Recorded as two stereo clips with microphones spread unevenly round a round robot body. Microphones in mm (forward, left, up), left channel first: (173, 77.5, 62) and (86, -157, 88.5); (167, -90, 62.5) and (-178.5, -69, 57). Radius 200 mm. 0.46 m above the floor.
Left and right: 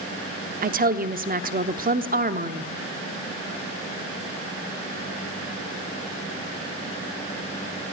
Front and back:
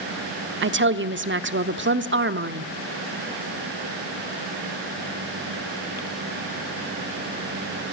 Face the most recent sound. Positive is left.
turn(degrees=-150)